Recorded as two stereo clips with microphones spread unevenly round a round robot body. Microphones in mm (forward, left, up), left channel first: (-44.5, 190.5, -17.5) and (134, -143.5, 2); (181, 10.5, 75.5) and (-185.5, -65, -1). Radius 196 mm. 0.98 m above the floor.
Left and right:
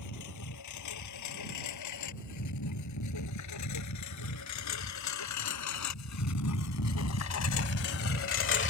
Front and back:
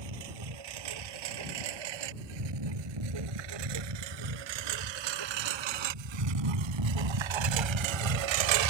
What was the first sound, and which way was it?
A lawn mower, 165° left.